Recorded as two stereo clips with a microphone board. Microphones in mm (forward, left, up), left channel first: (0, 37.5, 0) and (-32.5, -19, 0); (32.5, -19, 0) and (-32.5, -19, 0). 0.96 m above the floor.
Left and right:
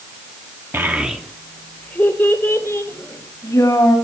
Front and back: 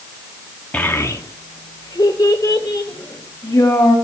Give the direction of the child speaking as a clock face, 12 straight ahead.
2 o'clock.